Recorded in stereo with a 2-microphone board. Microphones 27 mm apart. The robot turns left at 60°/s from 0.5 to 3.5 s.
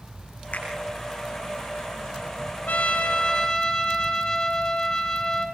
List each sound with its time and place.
0.5 s a finger snap: 65° left (ahead or behind), 8.5 m; by 0.7 s 55° left (ahead or behind), 8.5 m
2.7 s a trumpet: 75° left, 3.5 m; by 5.5 s 25° left, 3.5 m